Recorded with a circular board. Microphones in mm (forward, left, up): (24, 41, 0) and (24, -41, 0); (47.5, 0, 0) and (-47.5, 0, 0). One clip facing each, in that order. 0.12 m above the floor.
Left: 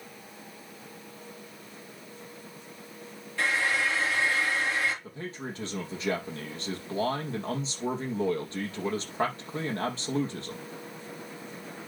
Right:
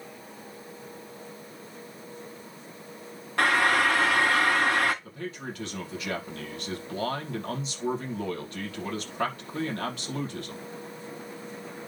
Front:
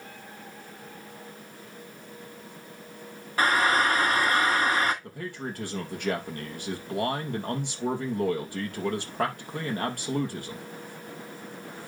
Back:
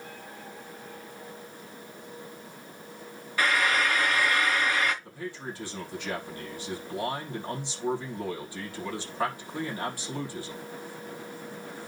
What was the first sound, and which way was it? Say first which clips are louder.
Frying: right 5 dB, front 3 dB; 55° right.